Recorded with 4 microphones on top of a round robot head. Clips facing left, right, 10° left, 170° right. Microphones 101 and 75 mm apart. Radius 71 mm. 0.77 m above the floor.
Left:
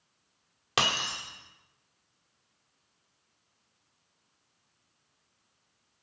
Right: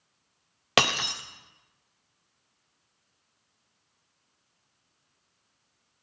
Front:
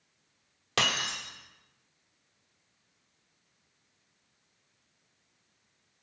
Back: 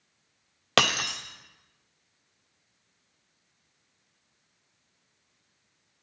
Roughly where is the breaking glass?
Behind right.